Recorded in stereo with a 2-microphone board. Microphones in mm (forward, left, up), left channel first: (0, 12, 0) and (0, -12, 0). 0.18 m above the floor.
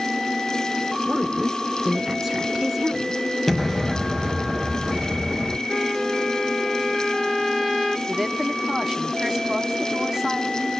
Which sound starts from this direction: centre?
A woman speaking, at 1.1 s.